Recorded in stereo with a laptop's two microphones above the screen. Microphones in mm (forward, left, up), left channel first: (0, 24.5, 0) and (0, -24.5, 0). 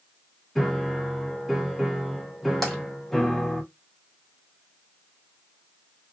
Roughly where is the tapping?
Centre.